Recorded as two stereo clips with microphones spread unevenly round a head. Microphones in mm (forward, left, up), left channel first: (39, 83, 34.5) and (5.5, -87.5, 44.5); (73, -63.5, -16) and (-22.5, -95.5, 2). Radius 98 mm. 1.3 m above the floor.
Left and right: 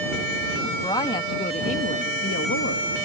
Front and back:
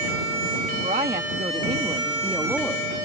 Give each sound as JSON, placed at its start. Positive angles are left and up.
{"t": 0.8, "sound": "a woman speaking", "azimuth_deg": 155}